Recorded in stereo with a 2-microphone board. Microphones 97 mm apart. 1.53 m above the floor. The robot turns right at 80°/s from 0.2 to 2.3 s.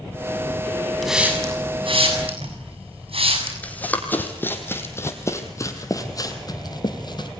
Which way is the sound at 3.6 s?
15° left (ahead or behind).